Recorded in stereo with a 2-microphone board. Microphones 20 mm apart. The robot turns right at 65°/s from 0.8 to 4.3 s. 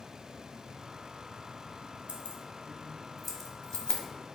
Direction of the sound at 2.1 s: 70° right (ahead or behind).